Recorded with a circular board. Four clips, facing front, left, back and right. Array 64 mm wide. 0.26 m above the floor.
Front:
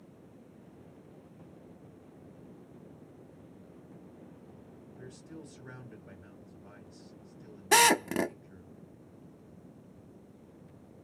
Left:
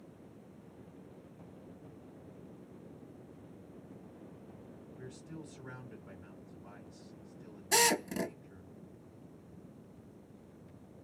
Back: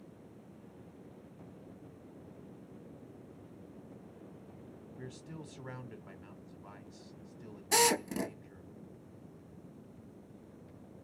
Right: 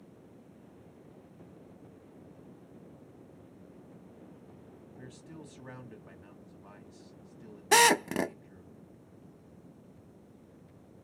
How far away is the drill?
About 0.6 m.